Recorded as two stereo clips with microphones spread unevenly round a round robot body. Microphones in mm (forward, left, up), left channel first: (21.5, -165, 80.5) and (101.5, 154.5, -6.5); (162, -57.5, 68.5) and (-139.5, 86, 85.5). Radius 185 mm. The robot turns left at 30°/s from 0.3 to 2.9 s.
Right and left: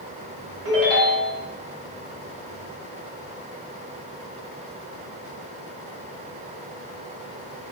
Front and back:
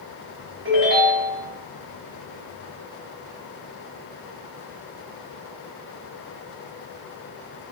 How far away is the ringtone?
About 2 m.